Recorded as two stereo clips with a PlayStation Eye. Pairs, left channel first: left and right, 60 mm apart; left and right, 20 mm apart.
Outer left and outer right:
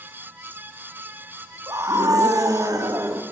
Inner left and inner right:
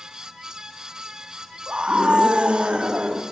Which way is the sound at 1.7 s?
60° right (ahead or behind).